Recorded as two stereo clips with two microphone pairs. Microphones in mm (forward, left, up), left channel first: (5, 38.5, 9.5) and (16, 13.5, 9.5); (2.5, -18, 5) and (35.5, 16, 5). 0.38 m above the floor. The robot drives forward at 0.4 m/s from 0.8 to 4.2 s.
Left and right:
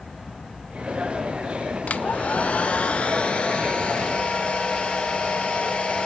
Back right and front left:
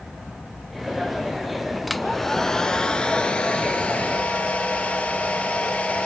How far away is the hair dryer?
About 0.6 m.